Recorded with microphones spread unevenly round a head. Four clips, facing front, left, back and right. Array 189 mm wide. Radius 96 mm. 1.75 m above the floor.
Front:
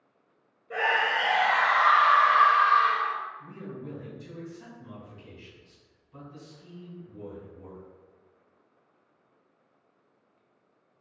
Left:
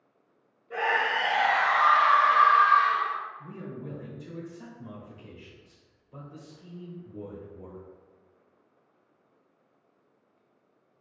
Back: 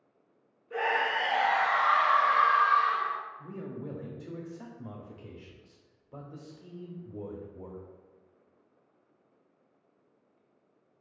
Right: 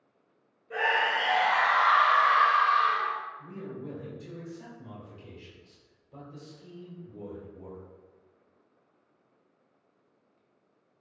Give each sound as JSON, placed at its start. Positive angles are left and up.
{"t": 0.7, "sound": "a scream", "azimuth_deg": -5, "distance_m": 1.7}
{"t": 3.4, "sound": "a man speaking", "azimuth_deg": 180, "distance_m": 0.8}